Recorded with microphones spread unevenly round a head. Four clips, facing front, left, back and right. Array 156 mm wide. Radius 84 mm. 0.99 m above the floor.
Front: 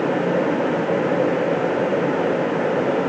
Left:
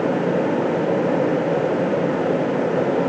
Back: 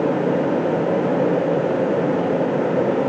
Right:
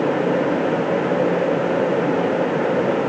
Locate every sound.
Only background noise.